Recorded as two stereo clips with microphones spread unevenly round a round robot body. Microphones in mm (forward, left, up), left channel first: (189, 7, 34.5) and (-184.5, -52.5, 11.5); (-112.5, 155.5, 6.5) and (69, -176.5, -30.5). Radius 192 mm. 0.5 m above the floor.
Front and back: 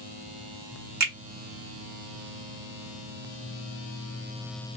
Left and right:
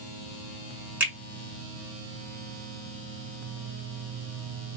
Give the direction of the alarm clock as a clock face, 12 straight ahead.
I don't hear an alarm clock.